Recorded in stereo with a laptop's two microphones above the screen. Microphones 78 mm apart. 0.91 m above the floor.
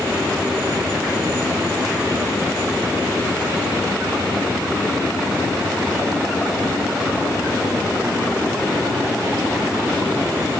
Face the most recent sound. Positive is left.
No sound to turn to.